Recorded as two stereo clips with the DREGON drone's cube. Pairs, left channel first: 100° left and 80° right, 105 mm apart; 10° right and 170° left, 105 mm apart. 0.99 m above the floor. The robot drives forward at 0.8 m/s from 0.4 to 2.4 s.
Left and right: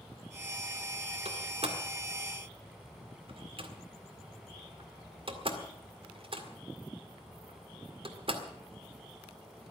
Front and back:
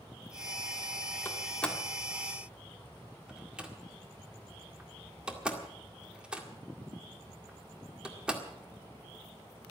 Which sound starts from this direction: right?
A door slam, at 1.2 s.